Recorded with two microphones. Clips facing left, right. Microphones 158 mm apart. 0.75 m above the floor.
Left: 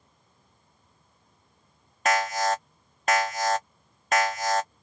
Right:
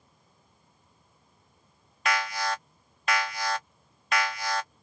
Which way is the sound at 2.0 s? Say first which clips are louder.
Left 5 dB; 45° left (ahead or behind).